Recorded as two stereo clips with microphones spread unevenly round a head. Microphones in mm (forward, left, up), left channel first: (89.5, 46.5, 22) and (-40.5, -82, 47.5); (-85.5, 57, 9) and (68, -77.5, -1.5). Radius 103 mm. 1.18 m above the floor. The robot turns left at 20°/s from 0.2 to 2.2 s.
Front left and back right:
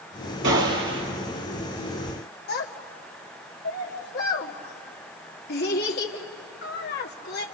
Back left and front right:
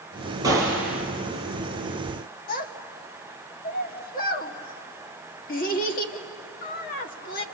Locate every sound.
0.4 s a gunshot: 115° right, 4.5 m; by 1.1 s 130° right, 4.5 m
2.5 s a child speaking: 85° left, 1.8 m